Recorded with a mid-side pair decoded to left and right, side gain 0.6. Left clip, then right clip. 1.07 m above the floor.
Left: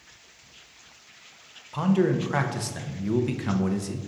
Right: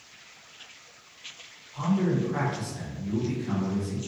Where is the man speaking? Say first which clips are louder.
Left 4 dB; 65° left, 0.7 m.